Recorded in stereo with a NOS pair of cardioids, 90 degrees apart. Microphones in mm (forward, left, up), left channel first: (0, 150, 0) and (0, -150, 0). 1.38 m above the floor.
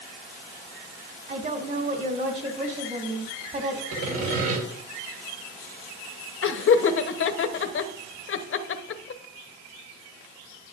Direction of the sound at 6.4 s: 45° left.